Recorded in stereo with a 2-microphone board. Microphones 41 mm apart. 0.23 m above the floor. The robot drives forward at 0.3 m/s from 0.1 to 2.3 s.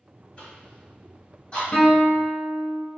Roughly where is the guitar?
Left.